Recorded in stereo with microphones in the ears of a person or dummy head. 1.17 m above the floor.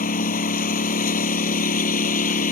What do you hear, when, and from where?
0.0 s a lawn mower: 45° left (ahead or behind)